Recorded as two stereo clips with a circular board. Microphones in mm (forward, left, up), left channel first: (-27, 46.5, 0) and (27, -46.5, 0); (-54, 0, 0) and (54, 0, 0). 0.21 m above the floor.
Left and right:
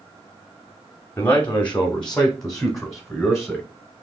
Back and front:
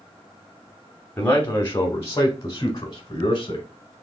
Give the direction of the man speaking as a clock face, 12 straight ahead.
7 o'clock.